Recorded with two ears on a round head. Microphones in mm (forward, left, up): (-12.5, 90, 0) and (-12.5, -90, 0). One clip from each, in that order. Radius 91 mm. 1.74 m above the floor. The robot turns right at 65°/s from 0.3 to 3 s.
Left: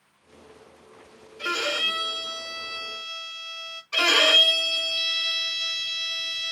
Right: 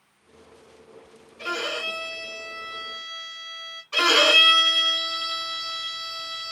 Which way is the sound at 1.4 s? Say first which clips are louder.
Left 3 dB; 40° left.